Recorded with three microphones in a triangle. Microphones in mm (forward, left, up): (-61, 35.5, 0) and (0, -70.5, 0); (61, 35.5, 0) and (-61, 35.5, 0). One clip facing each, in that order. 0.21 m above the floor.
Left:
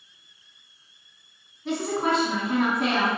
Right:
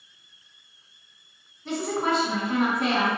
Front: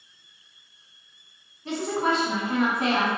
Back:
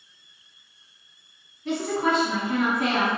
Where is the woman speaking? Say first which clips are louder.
Left 1 dB, back 1 dB; 35° left, 2.0 m.